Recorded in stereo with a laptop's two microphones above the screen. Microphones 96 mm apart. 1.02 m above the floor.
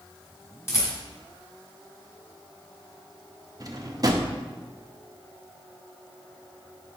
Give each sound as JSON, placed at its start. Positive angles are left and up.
{"t": 0.7, "sound": "a rattle", "side_deg": 25, "distance_m": 1.3}
{"t": 3.6, "sound": "a drawer", "side_deg": -40, "distance_m": 0.7}